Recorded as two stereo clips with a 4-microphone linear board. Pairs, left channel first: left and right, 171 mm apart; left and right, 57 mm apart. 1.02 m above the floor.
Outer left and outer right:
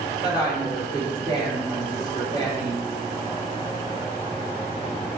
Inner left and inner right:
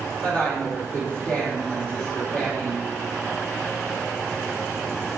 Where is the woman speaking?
20° left (ahead or behind), 2 m.